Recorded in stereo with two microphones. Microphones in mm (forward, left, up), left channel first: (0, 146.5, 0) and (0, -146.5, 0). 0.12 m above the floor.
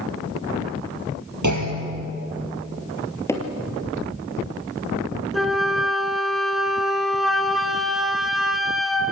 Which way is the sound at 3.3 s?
10° left (ahead or behind).